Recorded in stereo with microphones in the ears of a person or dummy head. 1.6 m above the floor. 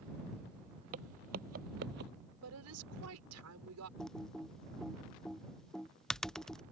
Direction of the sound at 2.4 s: 85° right.